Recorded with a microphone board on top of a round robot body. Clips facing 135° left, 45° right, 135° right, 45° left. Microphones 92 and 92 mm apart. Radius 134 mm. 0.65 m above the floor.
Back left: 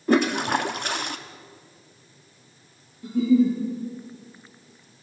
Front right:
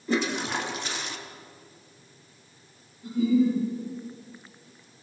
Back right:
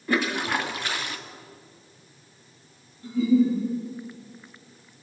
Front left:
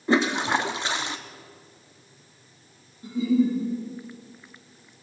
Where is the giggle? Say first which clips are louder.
Back left 3 dB, back right 2 dB; 115° left, 10 m.